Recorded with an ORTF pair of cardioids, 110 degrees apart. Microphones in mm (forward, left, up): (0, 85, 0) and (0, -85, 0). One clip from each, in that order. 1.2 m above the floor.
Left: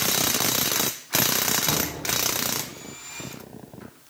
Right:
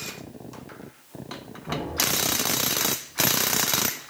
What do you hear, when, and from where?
1.7 s knocking: 35° left, 7.5 m